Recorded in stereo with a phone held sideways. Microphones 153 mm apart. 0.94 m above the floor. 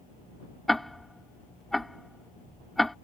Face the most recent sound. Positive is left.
turn(degrees=0)  # may be behind; listen again after turning